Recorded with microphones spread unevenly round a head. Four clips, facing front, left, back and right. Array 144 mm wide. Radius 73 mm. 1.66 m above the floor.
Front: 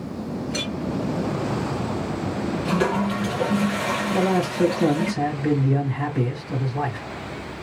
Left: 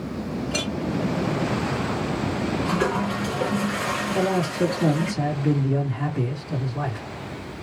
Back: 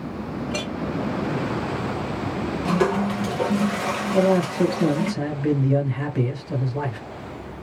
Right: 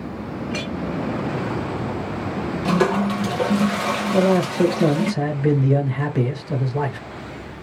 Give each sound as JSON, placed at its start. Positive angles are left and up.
{"t": 0.5, "sound": "a clink", "azimuth_deg": 145, "distance_m": 0.7}
{"t": 2.6, "sound": "a toilet flushing", "azimuth_deg": -115, "distance_m": 1.0}
{"t": 4.1, "sound": "a man speaking", "azimuth_deg": -95, "distance_m": 1.6}